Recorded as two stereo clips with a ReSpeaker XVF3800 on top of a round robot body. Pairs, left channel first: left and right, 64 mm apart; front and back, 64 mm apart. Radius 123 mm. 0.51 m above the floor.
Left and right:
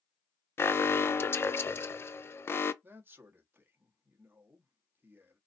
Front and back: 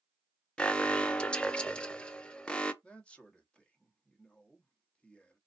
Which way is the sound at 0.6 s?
65° left.